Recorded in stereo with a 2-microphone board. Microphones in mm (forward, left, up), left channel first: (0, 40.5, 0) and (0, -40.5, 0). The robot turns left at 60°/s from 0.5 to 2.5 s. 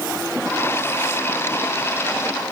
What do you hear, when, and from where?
Only background noise.